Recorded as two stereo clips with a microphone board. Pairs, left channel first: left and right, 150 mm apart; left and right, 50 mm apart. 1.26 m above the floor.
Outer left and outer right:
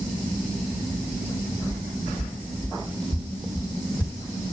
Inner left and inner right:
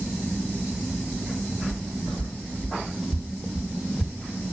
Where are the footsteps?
15° left (ahead or behind), 1.9 m; by 4.2 s 10° right (ahead or behind), 3 m.